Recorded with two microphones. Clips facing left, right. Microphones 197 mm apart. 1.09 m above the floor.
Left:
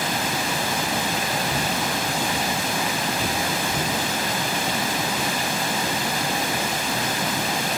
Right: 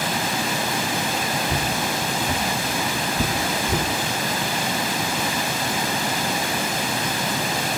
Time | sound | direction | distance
1.5 | footsteps | 30° right (ahead or behind) | 1.3 m